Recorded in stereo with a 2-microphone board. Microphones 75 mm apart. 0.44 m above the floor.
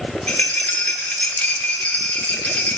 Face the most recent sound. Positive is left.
turn(degrees=20)  # may be behind; listen again after turning